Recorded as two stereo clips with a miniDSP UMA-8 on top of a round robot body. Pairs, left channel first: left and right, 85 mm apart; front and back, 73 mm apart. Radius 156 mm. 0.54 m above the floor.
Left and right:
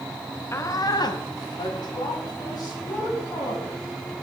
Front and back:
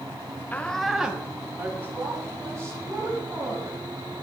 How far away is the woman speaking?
About 1.1 m.